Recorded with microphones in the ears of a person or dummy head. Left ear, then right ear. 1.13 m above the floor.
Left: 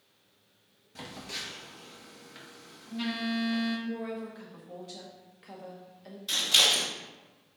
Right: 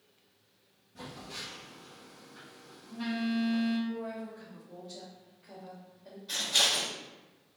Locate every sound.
0.9 s a phone buzzing: 60° left (ahead or behind), 1.1 m
3.9 s a woman speaking: 50° left (ahead or behind), 1.0 m
6.3 s scissors: 70° left (ahead or behind), 1.5 m